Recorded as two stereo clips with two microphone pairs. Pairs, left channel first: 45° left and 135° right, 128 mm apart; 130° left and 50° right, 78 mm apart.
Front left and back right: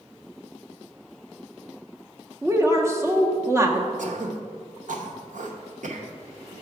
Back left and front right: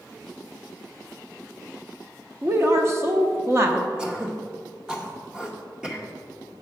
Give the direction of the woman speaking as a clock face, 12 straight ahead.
3 o'clock.